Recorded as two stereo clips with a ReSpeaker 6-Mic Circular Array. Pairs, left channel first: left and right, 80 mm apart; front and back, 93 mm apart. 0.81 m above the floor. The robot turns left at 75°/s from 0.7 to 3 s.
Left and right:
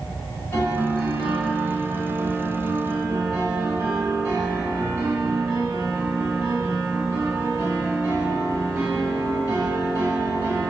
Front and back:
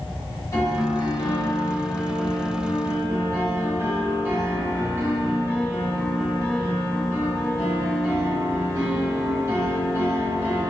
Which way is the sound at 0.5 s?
40° left.